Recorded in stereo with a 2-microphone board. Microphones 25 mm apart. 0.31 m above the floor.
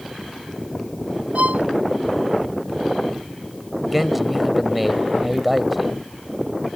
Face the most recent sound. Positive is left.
turn(degrees=-5)  # may be behind; listen again after turning